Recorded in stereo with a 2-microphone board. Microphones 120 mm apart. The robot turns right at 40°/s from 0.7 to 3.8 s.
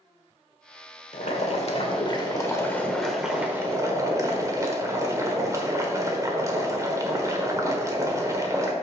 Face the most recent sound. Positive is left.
turn(degrees=-155)